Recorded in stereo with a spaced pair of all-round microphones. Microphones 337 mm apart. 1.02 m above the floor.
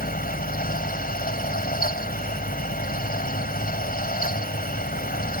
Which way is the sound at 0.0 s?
25° left (ahead or behind).